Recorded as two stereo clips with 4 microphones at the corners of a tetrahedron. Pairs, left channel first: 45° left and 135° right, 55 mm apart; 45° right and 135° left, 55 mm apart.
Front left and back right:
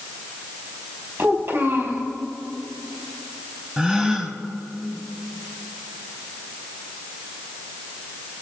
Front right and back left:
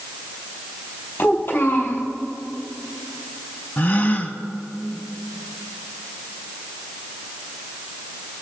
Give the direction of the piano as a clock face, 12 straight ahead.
I don't hear a piano.